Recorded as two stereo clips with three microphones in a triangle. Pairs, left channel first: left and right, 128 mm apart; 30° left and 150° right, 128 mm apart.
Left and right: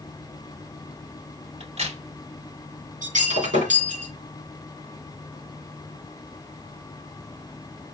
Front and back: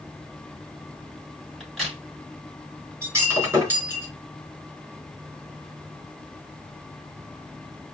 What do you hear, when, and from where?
1.6 s a crack: 60° right, 3.5 m
3.0 s breaking glass: 80° right, 3.5 m